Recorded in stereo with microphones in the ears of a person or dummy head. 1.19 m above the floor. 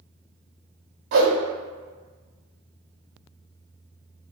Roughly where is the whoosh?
Right.